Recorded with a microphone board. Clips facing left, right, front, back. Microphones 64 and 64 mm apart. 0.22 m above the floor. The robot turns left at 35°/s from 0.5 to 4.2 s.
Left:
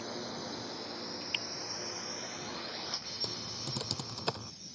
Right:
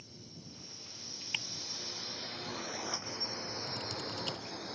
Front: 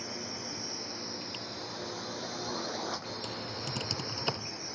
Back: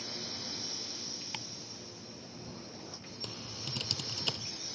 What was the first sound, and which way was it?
A drone, 70° left.